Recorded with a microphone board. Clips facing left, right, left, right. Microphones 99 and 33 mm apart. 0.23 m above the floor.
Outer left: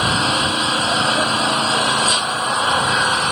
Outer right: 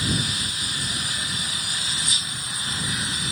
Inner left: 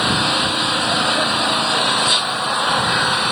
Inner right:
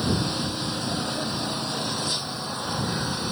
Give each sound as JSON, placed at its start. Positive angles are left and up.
{"t": 0.0, "sound": "an engine running", "side_deg": 65}